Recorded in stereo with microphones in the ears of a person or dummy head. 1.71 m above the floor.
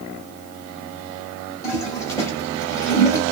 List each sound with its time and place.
1.6 s a toilet flushing: 20° left (ahead or behind), 0.9 m